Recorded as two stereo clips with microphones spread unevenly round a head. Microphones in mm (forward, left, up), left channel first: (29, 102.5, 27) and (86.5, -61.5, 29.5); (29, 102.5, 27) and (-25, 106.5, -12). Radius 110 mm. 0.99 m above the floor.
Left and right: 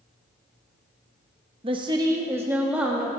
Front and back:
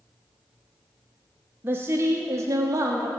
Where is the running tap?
No running tap in this recording.